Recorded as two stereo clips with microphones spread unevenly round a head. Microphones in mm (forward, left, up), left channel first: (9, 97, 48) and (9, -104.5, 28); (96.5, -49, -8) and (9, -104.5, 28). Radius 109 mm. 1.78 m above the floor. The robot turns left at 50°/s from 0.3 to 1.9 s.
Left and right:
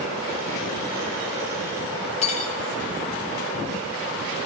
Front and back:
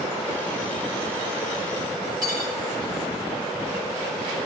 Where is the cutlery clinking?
150° left, 3 m.